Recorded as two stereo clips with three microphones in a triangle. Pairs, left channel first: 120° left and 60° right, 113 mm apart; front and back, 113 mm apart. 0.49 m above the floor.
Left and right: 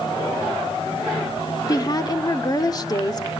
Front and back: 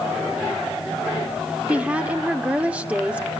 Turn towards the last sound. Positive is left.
turn(degrees=110)